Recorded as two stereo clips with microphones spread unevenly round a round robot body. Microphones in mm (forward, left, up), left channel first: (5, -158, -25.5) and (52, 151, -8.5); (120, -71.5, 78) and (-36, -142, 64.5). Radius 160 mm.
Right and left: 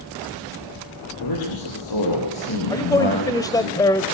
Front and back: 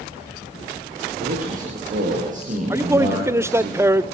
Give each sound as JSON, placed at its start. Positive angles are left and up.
{"t": 1.2, "sound": "a man speaking", "azimuth_deg": -120, "distance_m": 7.0}
{"t": 2.7, "sound": "a man speaking", "azimuth_deg": -145, "distance_m": 0.9}